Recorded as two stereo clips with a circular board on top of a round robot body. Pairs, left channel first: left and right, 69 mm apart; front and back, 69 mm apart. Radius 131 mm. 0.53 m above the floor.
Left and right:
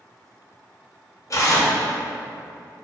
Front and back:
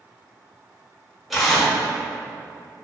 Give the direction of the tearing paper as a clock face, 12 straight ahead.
9 o'clock.